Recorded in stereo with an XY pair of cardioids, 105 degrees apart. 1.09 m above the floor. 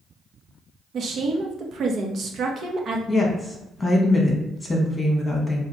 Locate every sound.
0.9 s a woman speaking: 55° right, 1.0 m
3.1 s a woman speaking: 15° left, 1.3 m